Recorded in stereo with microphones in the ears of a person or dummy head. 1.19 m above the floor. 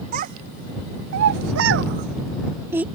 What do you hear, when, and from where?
0.1 s a child speaking: 45° right (ahead or behind); by 2.9 s 5° right (ahead or behind)